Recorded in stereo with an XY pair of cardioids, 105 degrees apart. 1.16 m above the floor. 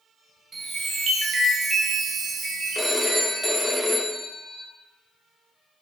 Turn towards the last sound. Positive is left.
turn(degrees=0)